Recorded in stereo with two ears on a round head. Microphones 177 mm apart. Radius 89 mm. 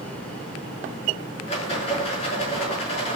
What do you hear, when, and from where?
1.5 s a rattle: 30° left (ahead or behind), 5.5 m